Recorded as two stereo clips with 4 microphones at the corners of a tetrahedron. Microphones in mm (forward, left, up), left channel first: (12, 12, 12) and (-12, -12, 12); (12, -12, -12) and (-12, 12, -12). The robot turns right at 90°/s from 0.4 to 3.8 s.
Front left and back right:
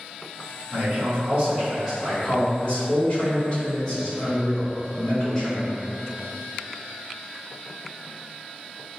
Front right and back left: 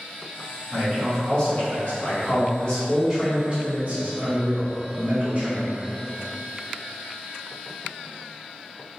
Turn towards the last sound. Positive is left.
turn(degrees=120)